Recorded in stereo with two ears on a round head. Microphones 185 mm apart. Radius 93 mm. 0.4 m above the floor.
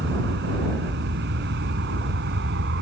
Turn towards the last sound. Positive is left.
turn(degrees=-55)  # may be behind; listen again after turning